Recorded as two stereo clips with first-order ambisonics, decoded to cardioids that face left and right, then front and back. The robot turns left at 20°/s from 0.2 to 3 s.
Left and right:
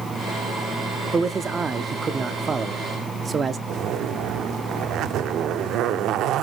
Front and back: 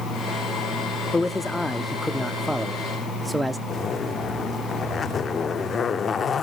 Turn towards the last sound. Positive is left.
turn(degrees=-60)